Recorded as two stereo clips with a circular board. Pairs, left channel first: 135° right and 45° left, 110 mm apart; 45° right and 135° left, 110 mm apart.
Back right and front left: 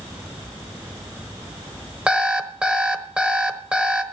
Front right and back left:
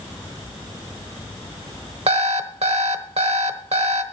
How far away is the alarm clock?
About 1.0 m.